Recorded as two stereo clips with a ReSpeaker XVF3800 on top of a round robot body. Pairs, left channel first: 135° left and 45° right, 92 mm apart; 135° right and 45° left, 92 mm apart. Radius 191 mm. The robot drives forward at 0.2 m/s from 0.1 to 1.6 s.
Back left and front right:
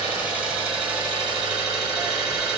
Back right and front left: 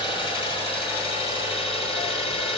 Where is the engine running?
120° right, 3 m; by 2.6 s 125° right, 3.5 m.